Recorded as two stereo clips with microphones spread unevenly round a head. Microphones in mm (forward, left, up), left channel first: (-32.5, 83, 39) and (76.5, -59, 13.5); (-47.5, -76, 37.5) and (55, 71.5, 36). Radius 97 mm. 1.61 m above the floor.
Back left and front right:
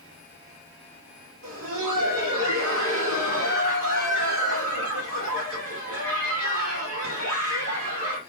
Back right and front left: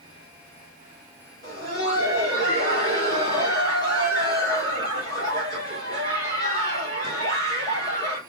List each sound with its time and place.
1.4 s laughter: 55° right, 1.9 m